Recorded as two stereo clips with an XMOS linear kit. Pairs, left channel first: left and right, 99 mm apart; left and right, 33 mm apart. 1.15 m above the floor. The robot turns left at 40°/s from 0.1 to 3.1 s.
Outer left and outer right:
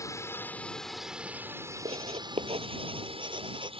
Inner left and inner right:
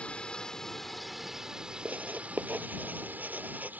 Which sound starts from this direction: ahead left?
A drone, at 0.0 s.